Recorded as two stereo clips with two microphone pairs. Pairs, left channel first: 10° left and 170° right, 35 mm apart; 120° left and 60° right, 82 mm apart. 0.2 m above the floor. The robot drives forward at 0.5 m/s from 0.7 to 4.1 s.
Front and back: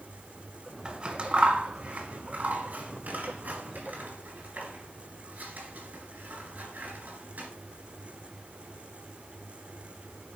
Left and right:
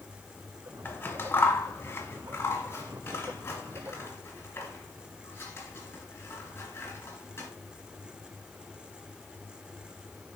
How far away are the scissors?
About 1.4 m.